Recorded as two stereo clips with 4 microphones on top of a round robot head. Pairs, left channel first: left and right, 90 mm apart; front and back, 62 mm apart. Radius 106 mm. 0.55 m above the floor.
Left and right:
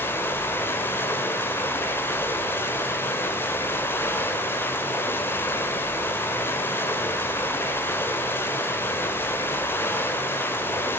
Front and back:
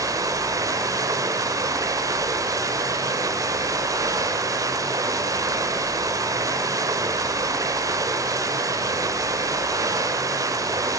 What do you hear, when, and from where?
0.0 s running water: 155° left, 1.7 m